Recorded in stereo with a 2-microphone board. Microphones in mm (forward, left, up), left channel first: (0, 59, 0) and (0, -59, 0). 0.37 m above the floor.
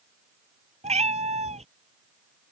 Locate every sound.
0.8 s a cat meowing: 75° right (ahead or behind)